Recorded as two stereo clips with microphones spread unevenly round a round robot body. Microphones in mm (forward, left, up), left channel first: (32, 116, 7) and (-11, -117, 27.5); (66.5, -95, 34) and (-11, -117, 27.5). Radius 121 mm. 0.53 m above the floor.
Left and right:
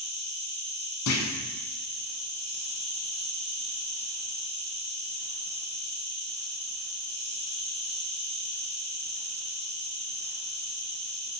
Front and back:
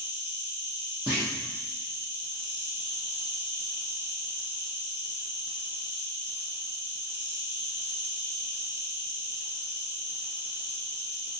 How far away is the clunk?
About 0.7 m.